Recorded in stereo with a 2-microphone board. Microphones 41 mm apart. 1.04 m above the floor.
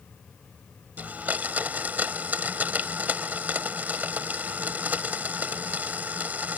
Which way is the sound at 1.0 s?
40° right (ahead or behind).